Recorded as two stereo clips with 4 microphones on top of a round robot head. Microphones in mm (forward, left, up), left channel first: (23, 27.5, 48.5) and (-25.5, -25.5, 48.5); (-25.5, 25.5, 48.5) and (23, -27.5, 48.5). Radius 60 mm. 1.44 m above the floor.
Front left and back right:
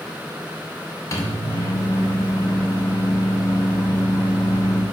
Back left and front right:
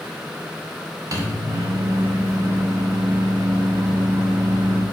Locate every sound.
1.1 s a microwave: straight ahead, 0.9 m